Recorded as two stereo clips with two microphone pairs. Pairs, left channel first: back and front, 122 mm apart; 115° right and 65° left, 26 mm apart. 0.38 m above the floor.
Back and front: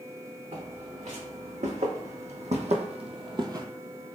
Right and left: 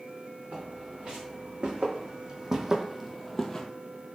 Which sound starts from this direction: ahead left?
Footsteps, at 0.5 s.